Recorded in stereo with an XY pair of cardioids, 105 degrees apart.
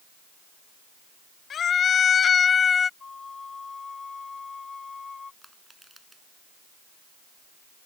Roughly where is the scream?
Ahead left.